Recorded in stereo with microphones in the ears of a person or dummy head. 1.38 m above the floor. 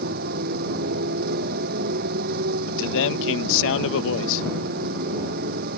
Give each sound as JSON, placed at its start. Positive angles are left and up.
{"t": 0.0, "sound": "a motorcycle", "side_deg": -50}
{"t": 2.7, "sound": "a man speaking", "side_deg": 75}